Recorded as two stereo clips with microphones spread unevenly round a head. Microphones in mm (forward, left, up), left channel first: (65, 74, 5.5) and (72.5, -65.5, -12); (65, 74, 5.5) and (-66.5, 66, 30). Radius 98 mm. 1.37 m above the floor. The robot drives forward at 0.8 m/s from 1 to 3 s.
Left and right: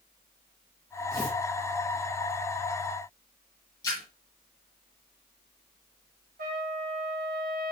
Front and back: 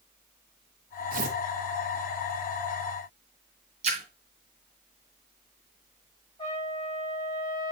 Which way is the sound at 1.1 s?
170° left.